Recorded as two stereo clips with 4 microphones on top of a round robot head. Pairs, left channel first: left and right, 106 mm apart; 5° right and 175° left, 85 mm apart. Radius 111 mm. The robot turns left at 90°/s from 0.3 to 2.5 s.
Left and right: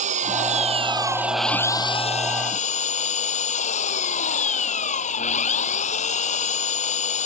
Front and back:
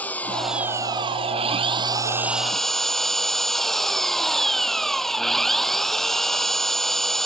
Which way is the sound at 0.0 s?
80° right.